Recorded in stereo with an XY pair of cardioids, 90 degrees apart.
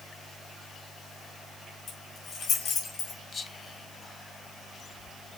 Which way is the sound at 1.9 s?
70° left.